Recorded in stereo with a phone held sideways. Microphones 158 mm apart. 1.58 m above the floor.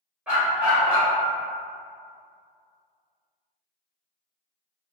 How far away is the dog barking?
About 1.6 m.